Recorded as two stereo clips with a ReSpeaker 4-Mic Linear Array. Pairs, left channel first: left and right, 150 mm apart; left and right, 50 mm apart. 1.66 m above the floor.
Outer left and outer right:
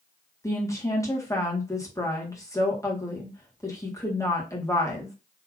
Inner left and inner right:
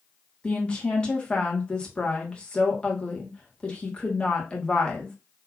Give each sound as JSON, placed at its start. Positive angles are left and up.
{"t": 0.4, "sound": "a woman speaking", "side_deg": 20, "distance_m": 1.7}